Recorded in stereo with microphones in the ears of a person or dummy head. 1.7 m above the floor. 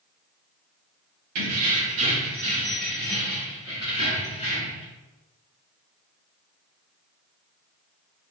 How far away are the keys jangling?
About 0.9 m.